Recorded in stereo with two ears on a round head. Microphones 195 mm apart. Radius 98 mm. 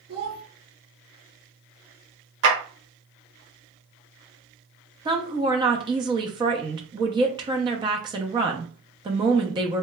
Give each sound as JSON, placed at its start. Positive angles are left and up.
{"t": 0.1, "sound": "a child speaking", "side_deg": -70, "distance_m": 0.8}
{"t": 2.4, "sound": "a clap", "side_deg": -60, "distance_m": 1.2}
{"t": 5.0, "sound": "a woman speaking", "side_deg": -20, "distance_m": 0.6}